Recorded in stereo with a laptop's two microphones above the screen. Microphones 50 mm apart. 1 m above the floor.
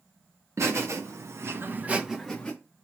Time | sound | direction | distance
0.6 | laughter | 75° right (ahead or behind) | 1.2 m